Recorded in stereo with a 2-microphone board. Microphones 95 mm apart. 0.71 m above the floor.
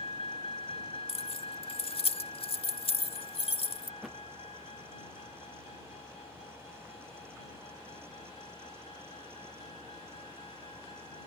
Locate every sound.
0.0 s a vehicle: 70° left (ahead or behind)
1.1 s keys jangling: 70° left (ahead or behind)
4.0 s a thud: centre (ahead or behind)